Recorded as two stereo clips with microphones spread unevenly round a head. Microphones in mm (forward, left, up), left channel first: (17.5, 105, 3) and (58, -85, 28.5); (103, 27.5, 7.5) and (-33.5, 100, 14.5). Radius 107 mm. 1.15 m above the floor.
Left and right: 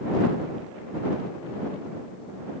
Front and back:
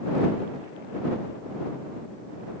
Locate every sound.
Only background noise.